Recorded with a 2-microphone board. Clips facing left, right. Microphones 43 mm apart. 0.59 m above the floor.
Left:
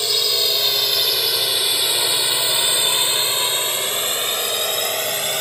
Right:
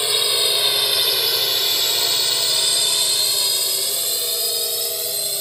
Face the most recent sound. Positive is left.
turn(degrees=60)  # may be behind; listen again after turning